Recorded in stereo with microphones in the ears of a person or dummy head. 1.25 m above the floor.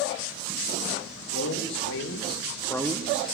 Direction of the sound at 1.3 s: 80° left.